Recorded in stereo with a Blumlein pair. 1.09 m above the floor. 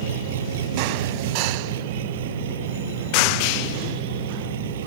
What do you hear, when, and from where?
0.0 s an engine running: 60° right